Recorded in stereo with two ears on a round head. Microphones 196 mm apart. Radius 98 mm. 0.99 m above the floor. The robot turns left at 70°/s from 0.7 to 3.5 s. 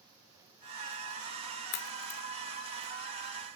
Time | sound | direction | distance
1.7 | a crack | 85° left | ?